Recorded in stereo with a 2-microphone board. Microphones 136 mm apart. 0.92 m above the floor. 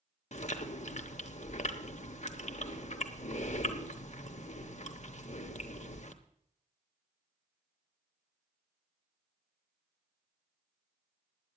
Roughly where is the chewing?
Left.